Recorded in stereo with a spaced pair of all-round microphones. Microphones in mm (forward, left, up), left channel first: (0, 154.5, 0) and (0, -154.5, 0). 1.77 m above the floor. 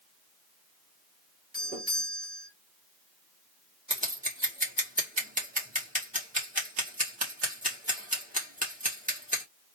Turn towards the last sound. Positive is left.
turn(degrees=-25)  # may be behind; listen again after turning